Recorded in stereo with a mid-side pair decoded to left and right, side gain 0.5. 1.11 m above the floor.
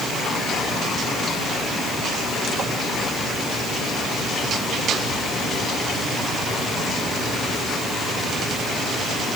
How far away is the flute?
I don't hear a flute.